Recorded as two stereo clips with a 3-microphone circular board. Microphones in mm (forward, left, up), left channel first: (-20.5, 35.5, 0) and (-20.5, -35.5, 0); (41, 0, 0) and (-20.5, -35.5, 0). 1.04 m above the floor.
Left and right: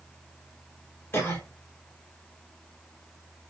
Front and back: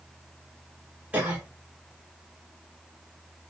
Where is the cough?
140° left, 1.2 m.